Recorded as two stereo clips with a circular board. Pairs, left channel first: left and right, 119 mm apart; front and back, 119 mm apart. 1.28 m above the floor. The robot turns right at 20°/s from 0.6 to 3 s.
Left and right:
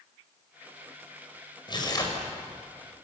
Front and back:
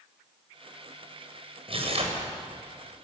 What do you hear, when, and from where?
1.7 s tearing paper: 140° left, 5 m; by 2.2 s 150° left, 5 m